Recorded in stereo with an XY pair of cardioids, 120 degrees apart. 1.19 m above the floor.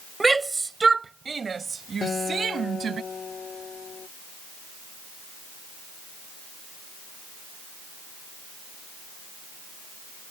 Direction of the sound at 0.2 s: 15° right.